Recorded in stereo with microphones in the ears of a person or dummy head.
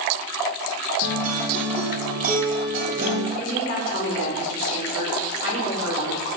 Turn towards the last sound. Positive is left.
turn(degrees=65)  # may be behind; listen again after turning